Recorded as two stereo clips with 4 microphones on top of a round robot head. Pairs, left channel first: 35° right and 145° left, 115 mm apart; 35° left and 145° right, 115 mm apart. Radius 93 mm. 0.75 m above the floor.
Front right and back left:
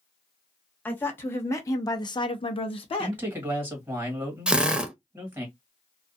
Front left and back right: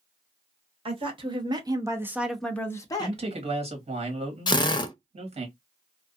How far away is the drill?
About 0.7 m.